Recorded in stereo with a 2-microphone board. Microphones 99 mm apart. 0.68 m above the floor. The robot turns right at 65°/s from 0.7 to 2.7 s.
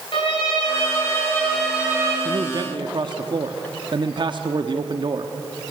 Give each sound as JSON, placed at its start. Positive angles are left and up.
{"t": 0.1, "sound": "a violin", "azimuth_deg": 120, "distance_m": 8.0}
{"t": 2.2, "sound": "a man speaking", "side_deg": -40, "distance_m": 1.1}